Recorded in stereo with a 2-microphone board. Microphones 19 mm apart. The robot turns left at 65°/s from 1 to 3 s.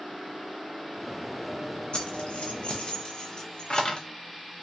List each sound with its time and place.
1.9 s keys jangling: 65° left (ahead or behind), 0.9 m; by 4.1 s 45° left (ahead or behind), 0.9 m